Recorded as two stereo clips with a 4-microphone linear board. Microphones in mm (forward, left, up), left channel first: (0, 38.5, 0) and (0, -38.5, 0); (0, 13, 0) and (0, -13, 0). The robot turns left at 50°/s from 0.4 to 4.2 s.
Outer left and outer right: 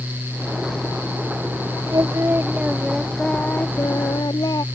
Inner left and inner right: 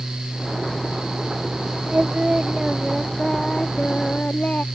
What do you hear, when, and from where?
1.9 s singing: 125° right; by 4.6 s 120° left